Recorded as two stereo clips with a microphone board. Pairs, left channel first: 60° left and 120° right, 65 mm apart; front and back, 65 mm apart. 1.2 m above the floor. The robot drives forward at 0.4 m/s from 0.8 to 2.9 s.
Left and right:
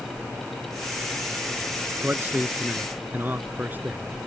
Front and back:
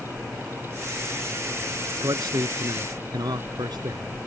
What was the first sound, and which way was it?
A man speaking, straight behind.